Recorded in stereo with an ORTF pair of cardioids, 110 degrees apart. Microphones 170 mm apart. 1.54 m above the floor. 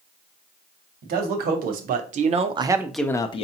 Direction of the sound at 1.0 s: 65° right.